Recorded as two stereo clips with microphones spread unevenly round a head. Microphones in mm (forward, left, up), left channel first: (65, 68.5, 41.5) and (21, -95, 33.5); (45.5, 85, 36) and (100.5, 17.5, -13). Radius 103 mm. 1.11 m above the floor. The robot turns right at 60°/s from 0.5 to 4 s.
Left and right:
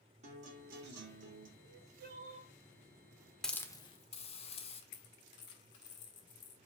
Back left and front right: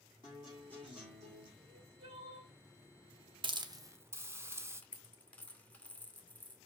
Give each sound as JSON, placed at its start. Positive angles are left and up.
{"t": 0.2, "sound": "a guitar", "azimuth_deg": -160, "distance_m": 2.5}
{"t": 1.6, "sound": "crying", "azimuth_deg": -100, "distance_m": 2.0}
{"t": 3.4, "sound": "a hiss", "azimuth_deg": -10, "distance_m": 1.3}
{"t": 4.8, "sound": "a dropped coin", "azimuth_deg": 60, "distance_m": 2.0}